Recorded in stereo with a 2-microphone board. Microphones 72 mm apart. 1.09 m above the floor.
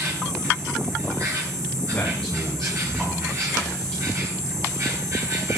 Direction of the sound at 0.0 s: 45° right (ahead or behind).